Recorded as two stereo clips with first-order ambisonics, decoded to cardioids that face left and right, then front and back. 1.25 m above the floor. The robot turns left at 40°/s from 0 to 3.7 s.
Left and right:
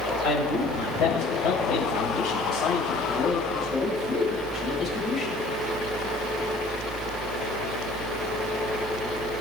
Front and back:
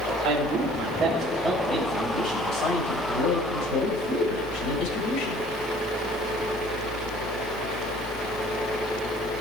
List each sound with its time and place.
0.2 s a man speaking: 140° left, 6 m; by 5.4 s straight ahead, 6 m